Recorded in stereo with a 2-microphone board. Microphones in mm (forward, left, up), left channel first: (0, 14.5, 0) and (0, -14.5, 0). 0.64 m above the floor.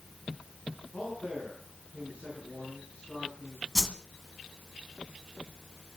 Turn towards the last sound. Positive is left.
turn(degrees=0)  # may be behind; listen again after turning